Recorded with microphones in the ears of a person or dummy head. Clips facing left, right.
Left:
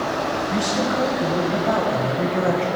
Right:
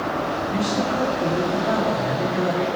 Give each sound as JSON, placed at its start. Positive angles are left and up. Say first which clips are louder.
{"t": 0.5, "sound": "a man speaking", "louder": "even", "side_deg": 45, "distance_m": 1.3}